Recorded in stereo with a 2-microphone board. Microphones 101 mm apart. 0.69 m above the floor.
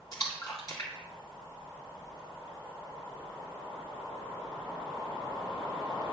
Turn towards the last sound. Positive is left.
turn(degrees=40)  # may be behind; listen again after turning